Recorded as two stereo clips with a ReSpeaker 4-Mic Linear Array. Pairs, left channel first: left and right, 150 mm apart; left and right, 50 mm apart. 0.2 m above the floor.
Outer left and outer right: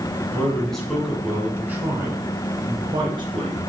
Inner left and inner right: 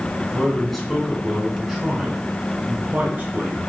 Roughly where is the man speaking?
Centre.